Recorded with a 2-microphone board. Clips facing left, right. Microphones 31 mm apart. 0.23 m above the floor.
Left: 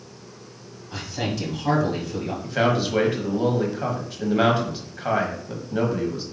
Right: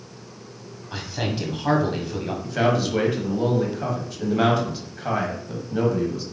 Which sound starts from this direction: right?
A man speaking, at 0.9 s.